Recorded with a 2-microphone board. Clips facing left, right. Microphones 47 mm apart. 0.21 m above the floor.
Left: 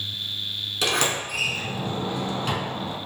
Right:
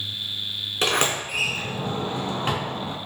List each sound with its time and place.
0.8 s a sliding door: 35° right (ahead or behind), 0.6 m